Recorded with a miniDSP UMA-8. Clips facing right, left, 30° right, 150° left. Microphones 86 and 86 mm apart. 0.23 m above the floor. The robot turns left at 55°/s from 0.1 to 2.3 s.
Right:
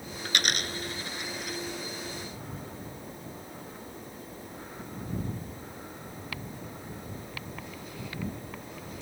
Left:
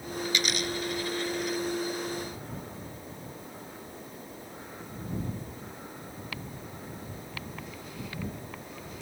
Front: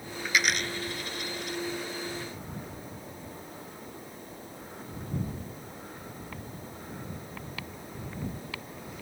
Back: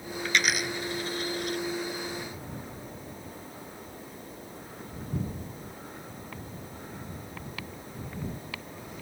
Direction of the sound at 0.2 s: 110° right.